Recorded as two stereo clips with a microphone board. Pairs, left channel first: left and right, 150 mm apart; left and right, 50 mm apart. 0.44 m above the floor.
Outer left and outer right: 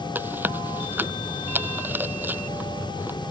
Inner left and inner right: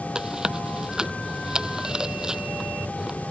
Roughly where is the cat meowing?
No cat meowing in this recording.